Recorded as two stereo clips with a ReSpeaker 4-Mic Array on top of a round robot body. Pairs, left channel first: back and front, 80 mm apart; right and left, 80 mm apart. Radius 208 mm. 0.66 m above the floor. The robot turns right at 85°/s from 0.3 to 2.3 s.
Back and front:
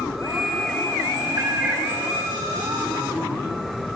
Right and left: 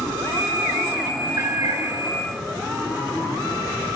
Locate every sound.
1.4 s a cat meowing: 35° left, 3 m; by 1.9 s 80° left, 3 m